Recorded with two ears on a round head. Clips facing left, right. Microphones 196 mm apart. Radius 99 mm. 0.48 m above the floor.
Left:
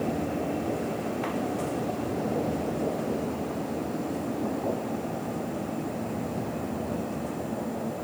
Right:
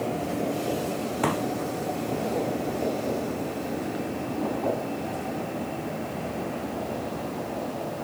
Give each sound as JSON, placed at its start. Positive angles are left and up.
{"t": 1.2, "sound": "a pop", "side_deg": -70}